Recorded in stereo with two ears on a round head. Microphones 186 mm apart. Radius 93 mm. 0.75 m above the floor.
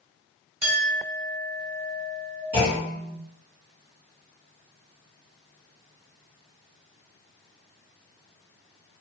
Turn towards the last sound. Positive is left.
turn(degrees=-50)  # may be behind; listen again after turning